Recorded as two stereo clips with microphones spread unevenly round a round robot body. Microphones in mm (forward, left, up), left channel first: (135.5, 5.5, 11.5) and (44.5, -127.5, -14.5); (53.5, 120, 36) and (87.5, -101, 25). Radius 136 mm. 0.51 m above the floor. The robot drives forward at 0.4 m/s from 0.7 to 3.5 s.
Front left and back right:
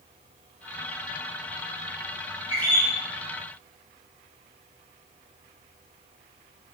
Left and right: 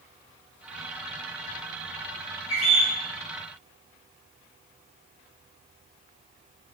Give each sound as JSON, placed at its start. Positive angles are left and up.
{"t": 2.5, "sound": "a bird", "azimuth_deg": 150, "distance_m": 1.6}